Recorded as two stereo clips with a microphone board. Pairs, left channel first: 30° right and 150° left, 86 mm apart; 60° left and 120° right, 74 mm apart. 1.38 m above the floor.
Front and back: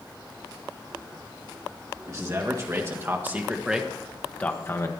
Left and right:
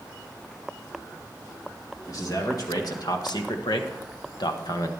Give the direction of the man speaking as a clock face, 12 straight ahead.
9 o'clock.